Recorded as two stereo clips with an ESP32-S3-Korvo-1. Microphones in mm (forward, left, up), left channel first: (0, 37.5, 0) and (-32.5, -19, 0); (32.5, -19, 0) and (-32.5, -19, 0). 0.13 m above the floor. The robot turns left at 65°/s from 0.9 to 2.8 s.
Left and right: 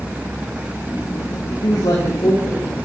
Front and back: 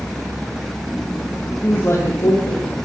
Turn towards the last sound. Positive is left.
turn(degrees=-5)